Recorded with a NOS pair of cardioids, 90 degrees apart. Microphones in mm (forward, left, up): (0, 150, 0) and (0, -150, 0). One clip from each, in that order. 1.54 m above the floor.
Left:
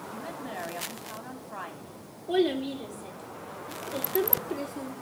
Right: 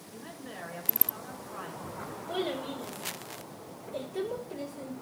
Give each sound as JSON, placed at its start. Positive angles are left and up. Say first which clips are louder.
{"t": 0.1, "sound": "a woman speaking", "louder": "left 5 dB", "azimuth_deg": 60, "distance_m": 3.5}
{"t": 2.3, "sound": "a child speaking", "louder": "left 7 dB", "azimuth_deg": 70, "distance_m": 3.5}